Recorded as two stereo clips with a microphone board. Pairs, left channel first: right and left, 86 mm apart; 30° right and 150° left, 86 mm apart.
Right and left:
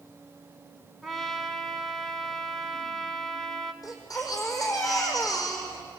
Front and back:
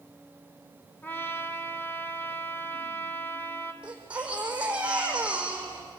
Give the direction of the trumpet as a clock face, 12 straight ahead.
12 o'clock.